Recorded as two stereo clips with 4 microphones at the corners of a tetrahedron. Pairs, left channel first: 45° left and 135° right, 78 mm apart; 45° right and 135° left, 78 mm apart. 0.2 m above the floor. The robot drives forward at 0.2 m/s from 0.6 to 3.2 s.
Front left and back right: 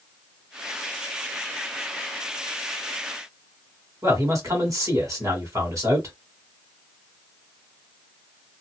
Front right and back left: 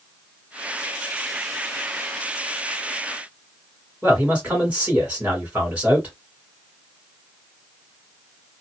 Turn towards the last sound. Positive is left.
turn(degrees=-160)